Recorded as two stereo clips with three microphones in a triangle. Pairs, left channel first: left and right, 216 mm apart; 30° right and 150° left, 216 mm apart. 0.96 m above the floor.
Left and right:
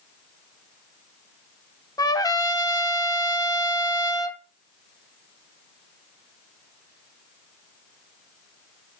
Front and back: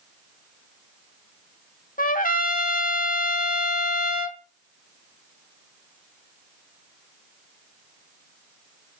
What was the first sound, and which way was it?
A trumpet, 15° left.